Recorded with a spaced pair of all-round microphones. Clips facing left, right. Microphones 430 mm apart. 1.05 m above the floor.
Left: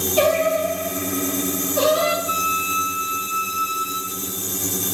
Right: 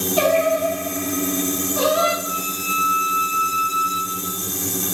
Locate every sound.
0.2 s singing: 35° right (ahead or behind), 3.5 m
2.2 s a flute: 60° right (ahead or behind), 1.7 m